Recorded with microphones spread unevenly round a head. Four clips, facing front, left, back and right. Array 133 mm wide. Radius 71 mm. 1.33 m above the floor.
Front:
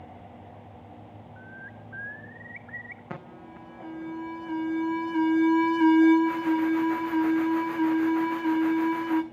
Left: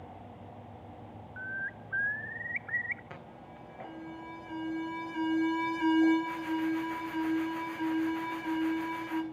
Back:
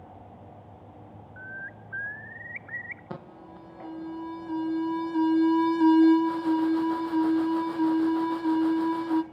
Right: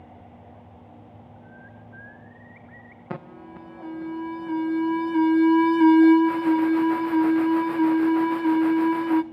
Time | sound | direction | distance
1.4 | a bird | 120° left | 0.8 m
3.1 | an alarm | 90° right | 1.2 m